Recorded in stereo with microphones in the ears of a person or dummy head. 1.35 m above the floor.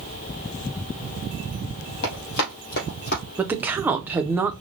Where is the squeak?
I don't hear a squeak.